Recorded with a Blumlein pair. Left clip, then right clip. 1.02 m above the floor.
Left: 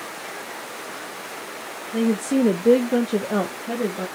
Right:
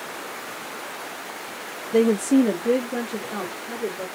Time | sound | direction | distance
1.9 | a woman speaking | 25° right | 0.6 m